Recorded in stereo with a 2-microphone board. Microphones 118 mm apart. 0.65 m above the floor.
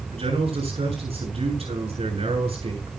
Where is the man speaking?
55° right (ahead or behind), 7 m.